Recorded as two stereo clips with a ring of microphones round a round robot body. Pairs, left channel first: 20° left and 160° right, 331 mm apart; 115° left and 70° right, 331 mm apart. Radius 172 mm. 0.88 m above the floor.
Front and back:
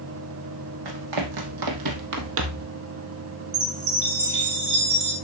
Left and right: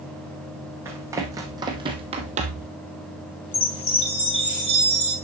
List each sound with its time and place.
0.8 s running footsteps: 150° right, 1.9 m; by 2.7 s 115° right, 1.0 m
3.5 s a chime: 170° right, 5.5 m